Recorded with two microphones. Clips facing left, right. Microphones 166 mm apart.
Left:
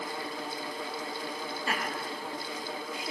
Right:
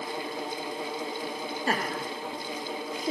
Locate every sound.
1.7 s laughter: 40° right (ahead or behind), 2.0 m